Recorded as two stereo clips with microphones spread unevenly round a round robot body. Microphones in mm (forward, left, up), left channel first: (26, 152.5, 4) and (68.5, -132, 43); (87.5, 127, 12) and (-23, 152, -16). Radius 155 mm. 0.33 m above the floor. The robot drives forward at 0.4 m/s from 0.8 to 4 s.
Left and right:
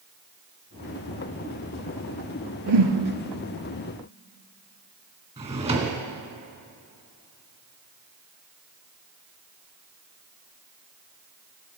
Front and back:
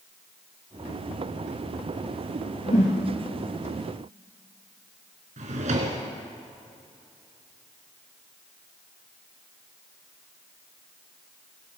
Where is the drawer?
155° right, 1.3 m.